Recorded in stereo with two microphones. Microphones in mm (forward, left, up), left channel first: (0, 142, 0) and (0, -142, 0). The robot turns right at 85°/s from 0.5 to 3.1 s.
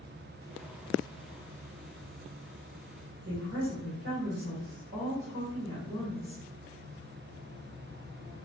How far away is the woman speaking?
About 1.4 m.